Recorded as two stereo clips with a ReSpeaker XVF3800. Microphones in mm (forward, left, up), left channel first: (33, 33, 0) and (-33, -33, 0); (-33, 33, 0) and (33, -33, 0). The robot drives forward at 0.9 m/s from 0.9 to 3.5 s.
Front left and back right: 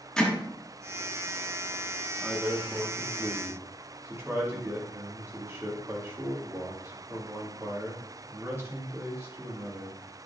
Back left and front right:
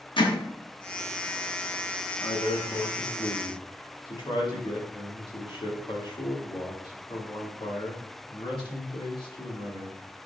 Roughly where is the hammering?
Behind left.